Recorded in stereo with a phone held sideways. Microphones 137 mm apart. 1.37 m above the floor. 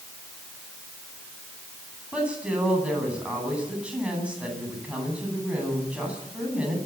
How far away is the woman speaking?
About 10 m.